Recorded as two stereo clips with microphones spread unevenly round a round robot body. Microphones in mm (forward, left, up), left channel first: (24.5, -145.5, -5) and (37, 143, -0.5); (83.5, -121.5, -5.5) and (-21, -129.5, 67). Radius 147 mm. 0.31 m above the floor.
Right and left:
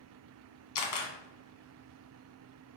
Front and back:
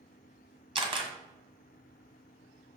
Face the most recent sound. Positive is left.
turn(degrees=-120)